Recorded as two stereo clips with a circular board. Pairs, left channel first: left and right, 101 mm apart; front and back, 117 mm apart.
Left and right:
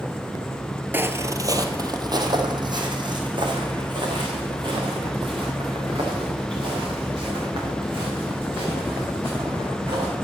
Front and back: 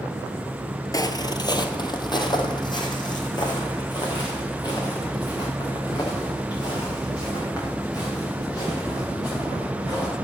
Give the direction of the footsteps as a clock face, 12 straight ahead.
1 o'clock.